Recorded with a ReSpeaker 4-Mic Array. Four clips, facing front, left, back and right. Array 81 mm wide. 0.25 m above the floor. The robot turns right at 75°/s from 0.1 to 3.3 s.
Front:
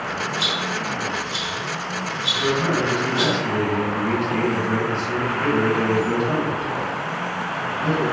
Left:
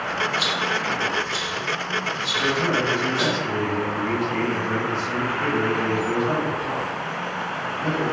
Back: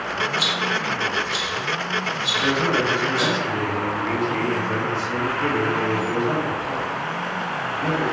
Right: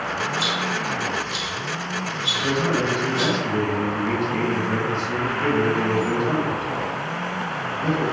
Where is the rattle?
140° left, 0.9 m; by 3.4 s straight ahead, 0.9 m.